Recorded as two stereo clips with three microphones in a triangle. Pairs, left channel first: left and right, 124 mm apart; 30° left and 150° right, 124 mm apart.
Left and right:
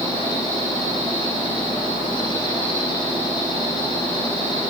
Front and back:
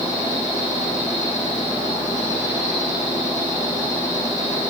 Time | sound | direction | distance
0.0 | an insect | 40° left | 6 m